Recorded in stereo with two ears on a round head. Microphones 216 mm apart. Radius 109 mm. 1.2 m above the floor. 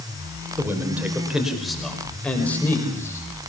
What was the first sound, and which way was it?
A man speaking, 10° right (ahead or behind).